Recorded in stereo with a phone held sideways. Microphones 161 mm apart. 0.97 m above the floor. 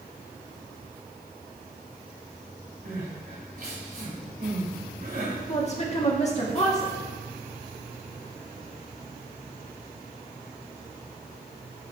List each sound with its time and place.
2.9 s crying: 70° right (ahead or behind), 2.0 m
5.5 s a woman speaking: 45° left (ahead or behind), 1.5 m